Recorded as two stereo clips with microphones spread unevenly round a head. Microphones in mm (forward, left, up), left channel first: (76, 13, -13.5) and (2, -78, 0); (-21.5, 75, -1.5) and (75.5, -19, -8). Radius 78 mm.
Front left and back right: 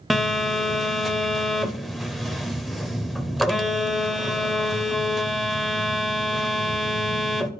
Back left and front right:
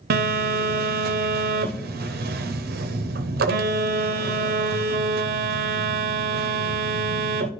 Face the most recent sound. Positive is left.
turn(degrees=-40)